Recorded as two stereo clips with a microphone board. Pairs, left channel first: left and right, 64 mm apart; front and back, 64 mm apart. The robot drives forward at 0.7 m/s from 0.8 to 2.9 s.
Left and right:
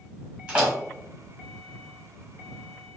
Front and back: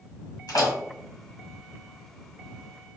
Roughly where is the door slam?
Ahead.